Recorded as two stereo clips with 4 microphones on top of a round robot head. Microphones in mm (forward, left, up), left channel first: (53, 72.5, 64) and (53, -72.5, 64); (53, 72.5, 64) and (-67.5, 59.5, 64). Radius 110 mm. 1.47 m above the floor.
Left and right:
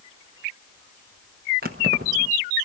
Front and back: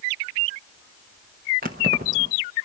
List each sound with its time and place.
1.6 s keys jangling: 135° right, 1.0 m